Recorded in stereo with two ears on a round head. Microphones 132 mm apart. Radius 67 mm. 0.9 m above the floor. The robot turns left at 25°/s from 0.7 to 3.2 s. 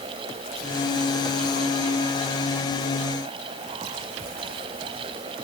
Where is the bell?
I don't hear a bell.